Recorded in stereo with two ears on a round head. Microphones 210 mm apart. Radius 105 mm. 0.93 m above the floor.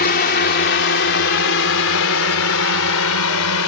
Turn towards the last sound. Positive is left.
turn(degrees=70)  # may be behind; listen again after turning